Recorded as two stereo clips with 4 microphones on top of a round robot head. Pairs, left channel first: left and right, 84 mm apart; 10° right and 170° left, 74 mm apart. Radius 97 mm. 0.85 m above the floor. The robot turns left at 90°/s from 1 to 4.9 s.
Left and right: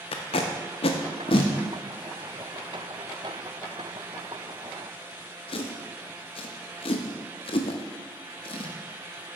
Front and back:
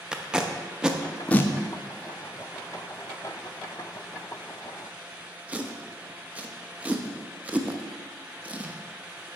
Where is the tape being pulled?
90° left, 0.5 m; by 8.8 s 100° left, 0.5 m.